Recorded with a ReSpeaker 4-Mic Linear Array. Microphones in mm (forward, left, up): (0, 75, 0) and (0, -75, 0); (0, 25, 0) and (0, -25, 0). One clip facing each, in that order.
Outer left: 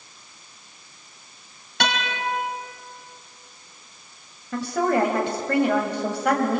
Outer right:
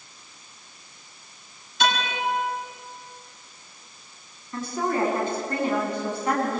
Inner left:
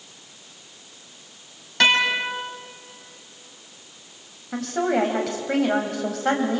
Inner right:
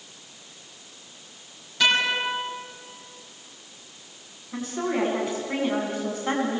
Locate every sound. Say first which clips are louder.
1.8 s a guitar: outer right 1 dB, inner left 3 dB; 65° left (ahead or behind), 5.5 m
4.5 s a woman speaking: outer left 4 dB, inner left 5 dB; 75° left (ahead or behind), 5.5 m